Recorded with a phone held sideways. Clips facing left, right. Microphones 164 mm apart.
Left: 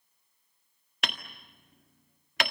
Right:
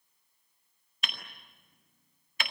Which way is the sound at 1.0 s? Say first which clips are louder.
Left 6 dB; 75° left (ahead or behind).